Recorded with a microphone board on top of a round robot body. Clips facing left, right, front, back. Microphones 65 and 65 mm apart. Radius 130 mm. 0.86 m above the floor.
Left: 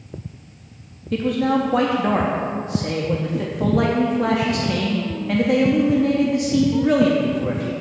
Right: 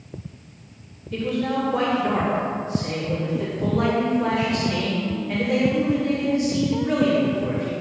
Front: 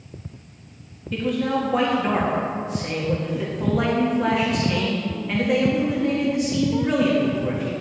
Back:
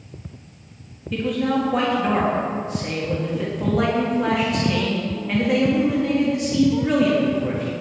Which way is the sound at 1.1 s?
90° left.